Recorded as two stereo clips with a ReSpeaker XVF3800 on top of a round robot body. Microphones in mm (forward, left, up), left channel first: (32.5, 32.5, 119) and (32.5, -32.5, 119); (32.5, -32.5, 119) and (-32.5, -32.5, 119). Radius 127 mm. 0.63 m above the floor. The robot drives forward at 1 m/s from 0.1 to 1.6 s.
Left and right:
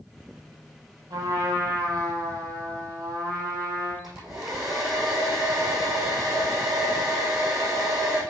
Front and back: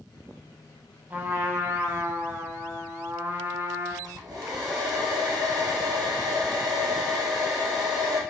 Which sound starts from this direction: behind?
A hair dryer, at 4.0 s.